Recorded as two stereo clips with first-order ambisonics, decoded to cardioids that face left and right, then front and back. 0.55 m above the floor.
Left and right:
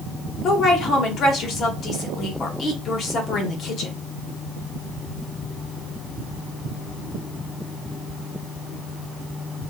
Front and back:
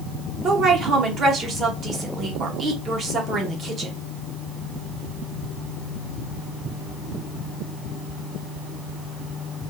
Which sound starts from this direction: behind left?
A woman speaking, at 0.4 s.